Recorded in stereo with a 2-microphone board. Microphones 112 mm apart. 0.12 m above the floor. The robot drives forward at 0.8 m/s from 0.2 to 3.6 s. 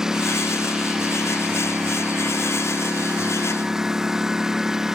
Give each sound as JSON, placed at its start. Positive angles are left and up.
{"t": 0.0, "sound": "a lawn mower", "side_deg": -5}